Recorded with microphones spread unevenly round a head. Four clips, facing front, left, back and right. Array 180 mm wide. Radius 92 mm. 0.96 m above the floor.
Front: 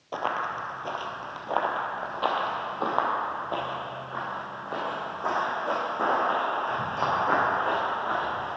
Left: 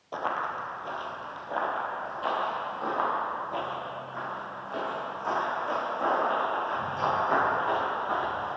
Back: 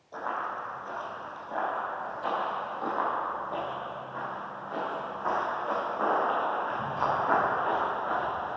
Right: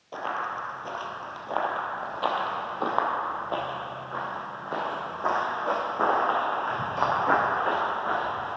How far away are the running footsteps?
About 1.5 m.